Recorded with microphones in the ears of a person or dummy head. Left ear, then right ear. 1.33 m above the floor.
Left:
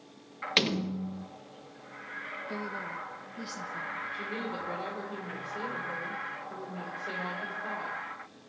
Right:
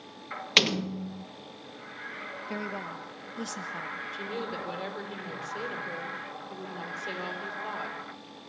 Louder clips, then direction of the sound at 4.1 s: Right 1 dB; 70° right (ahead or behind).